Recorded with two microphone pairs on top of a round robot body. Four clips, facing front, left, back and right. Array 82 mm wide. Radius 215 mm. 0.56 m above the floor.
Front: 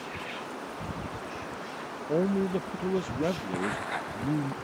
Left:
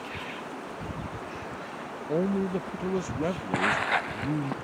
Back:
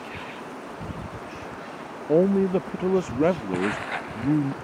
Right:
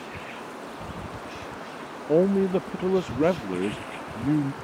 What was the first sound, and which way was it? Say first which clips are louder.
A man speaking: right 7 dB, back 7 dB; 135° right.